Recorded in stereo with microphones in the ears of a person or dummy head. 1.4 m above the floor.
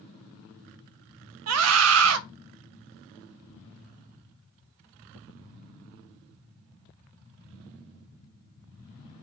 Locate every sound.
1.5 s a scream: 80° right, 0.7 m